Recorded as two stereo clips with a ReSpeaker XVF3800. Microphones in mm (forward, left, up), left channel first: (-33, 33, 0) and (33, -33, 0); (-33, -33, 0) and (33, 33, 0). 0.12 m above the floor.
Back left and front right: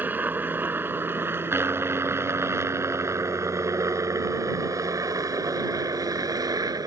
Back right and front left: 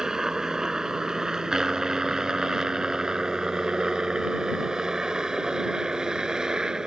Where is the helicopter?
25° right; by 6.9 s 35° right.